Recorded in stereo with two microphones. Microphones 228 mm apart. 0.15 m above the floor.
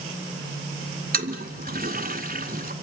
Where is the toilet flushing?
40° right (ahead or behind), 1.1 m.